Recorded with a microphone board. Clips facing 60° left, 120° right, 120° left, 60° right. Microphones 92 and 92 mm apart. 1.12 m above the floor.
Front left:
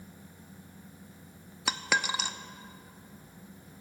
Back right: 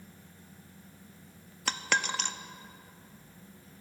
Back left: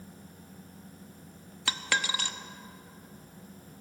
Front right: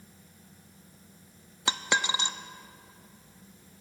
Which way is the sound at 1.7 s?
15° right.